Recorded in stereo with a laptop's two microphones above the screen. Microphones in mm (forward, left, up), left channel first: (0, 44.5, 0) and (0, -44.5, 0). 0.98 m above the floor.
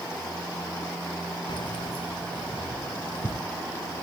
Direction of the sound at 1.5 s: 60° left (ahead or behind).